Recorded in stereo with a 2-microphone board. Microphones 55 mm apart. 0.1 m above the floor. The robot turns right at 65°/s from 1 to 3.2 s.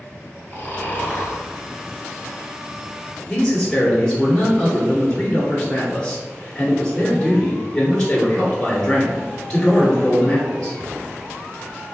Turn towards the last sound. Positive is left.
turn(degrees=10)  # may be behind; listen again after turning